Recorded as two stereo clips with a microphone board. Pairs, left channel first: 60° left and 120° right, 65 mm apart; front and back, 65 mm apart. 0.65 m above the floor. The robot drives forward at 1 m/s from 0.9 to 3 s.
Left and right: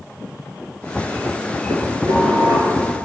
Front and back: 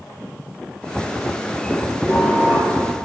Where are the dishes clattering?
110° right, 7 m; by 2.8 s 115° right, 7.5 m.